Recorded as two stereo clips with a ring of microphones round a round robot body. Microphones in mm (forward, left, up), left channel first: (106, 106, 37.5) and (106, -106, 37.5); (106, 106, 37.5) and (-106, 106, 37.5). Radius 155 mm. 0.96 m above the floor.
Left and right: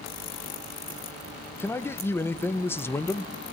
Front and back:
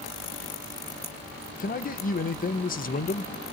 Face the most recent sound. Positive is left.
turn(degrees=15)